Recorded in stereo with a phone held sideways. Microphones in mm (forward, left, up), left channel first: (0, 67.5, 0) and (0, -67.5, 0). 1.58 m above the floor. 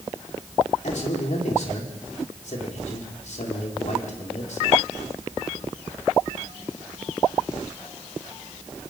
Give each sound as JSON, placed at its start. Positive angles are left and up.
{"t": 0.8, "sound": "a man speaking", "side_deg": 65, "distance_m": 4.5}